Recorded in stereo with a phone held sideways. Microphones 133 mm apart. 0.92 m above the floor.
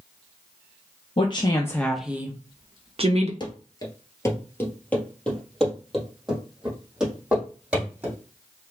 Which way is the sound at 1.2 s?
45° left (ahead or behind).